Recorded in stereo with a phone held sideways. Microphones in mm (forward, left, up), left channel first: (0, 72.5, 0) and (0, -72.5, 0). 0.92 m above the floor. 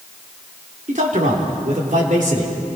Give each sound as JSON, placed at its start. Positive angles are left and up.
{"t": 0.9, "sound": "a man speaking", "side_deg": -60, "distance_m": 3.0}